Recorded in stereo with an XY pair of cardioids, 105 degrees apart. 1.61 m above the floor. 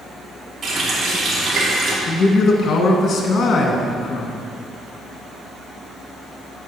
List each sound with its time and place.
0.6 s a running tap: 45° right, 3 m
2.1 s a man speaking: 50° left, 2 m